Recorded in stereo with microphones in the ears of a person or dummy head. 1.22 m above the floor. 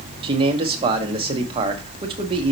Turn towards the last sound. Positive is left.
turn(degrees=-30)  # may be behind; listen again after turning